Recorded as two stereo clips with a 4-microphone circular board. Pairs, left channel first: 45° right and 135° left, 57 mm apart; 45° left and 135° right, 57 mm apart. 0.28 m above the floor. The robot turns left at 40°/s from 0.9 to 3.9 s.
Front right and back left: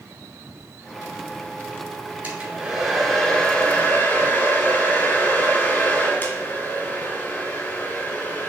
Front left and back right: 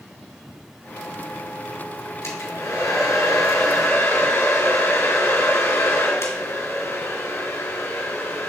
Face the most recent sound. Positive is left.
turn(degrees=10)